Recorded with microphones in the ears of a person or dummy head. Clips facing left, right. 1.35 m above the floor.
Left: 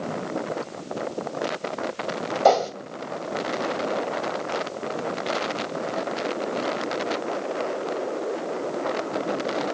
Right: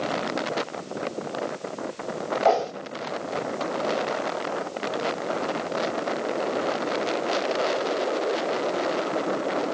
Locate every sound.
2.5 s a whoosh: 55° left (ahead or behind), 2.0 m